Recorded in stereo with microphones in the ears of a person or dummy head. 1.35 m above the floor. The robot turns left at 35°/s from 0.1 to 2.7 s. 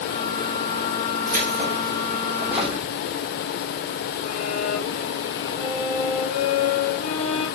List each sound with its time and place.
1.3 s keys jangling: 130° right, 3 m; by 2.8 s straight behind, 3 m
4.2 s a violin: 60° left (ahead or behind), 4 m